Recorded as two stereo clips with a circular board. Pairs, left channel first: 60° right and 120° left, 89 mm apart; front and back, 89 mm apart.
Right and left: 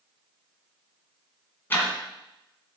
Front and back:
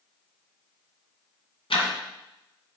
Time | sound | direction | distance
1.7 | ticking | 5° left | 2.5 m